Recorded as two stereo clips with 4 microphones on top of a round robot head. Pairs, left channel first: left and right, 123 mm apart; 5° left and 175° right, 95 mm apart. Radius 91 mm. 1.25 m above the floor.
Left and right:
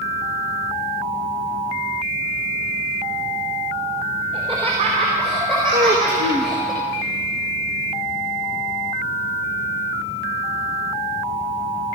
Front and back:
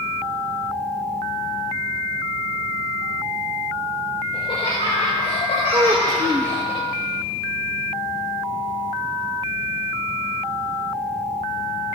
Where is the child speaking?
120° right, 0.9 m.